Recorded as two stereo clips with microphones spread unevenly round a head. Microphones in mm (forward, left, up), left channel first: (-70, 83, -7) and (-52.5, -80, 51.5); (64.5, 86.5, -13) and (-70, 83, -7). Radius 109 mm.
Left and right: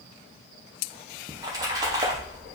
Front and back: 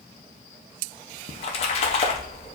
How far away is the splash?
About 0.6 m.